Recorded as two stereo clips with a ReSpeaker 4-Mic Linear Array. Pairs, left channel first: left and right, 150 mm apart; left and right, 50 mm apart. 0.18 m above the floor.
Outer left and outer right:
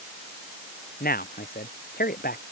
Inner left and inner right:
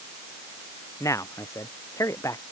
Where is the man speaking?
80° left.